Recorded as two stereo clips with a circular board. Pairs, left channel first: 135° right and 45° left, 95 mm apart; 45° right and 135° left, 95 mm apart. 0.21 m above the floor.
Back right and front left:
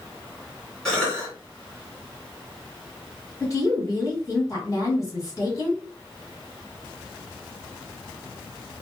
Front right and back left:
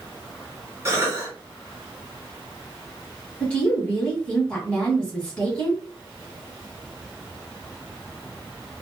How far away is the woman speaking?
About 1.8 m.